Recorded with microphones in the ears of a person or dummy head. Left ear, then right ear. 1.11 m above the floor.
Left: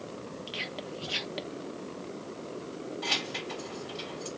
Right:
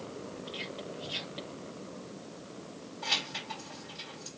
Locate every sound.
0.5 s whispering: 50° left (ahead or behind), 0.8 m
3.0 s keys jangling: 35° left (ahead or behind), 3.5 m